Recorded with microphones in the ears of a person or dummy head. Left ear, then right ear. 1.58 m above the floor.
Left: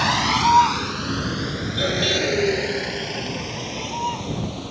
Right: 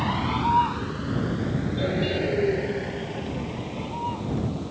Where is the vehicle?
75° left (ahead or behind); by 4.7 s 85° left.